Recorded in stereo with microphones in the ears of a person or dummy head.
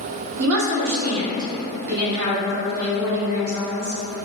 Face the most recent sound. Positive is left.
turn(degrees=-50)  # may be behind; listen again after turning